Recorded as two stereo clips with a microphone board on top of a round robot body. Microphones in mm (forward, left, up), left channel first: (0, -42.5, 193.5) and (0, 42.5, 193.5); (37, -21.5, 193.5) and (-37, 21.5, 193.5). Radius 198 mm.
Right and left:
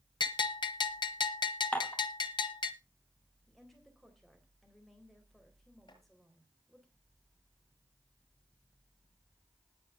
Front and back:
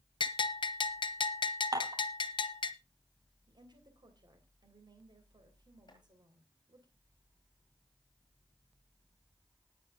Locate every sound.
0.2 s a bell: 60° right, 0.7 m
1.7 s dishes clattering: 165° right, 3 m
3.5 s a woman speaking: straight behind, 3.5 m
5.9 s chopping: 70° right, 9 m